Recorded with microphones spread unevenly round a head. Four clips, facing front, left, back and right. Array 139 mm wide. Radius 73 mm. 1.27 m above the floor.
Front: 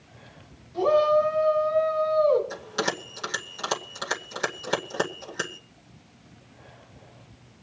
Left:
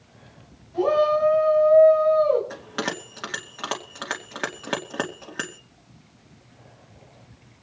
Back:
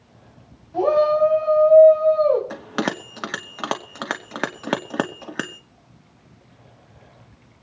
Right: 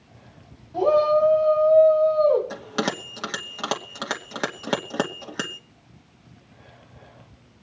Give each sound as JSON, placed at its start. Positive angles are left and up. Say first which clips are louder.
{"t": 0.7, "sound": "a shout", "louder": "right 2 dB, back 3 dB", "azimuth_deg": -165, "distance_m": 8.5}
{"t": 2.5, "sound": "a bell", "louder": "right 3 dB, back 4 dB", "azimuth_deg": -165, "distance_m": 2.5}